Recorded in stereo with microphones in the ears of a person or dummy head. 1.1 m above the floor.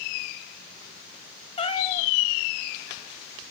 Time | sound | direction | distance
1.6 | a cat meowing | 30° left (ahead or behind) | 2 m